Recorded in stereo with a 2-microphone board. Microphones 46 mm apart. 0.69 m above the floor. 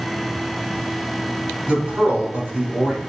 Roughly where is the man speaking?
Right.